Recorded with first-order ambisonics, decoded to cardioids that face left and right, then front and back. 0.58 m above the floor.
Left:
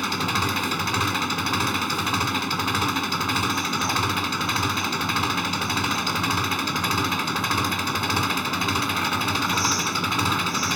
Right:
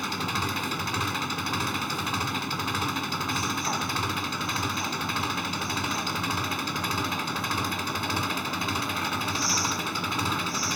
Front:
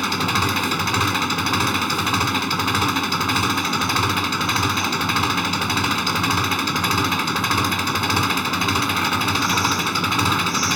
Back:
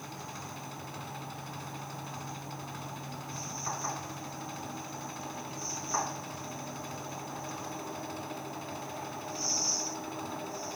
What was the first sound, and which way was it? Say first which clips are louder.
An engine running: left 5 dB, front 23 dB; 15° left.